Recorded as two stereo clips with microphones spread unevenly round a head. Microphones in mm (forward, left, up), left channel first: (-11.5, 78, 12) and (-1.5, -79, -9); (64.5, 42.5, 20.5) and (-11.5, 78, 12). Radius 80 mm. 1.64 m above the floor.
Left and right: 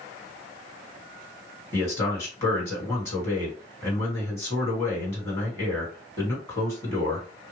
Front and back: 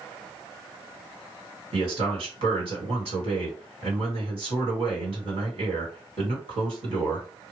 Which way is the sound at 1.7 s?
170° left.